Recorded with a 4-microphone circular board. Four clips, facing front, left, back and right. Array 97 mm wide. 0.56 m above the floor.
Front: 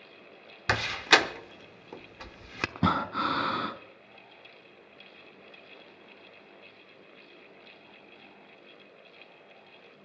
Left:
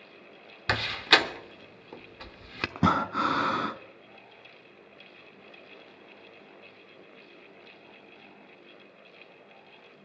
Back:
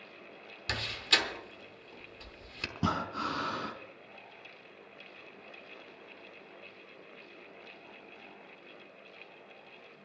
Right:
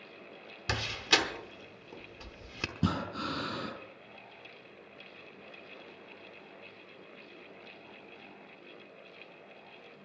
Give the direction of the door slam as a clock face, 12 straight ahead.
11 o'clock.